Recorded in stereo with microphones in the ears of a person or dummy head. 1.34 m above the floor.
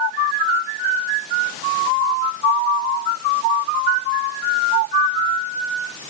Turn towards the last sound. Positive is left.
No sound to turn to.